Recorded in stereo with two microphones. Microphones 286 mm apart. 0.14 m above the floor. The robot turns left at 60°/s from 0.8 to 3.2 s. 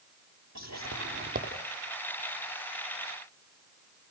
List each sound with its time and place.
0.6 s whispering: 65° right (ahead or behind), 6 m; by 1.5 s 25° right (ahead or behind), 6 m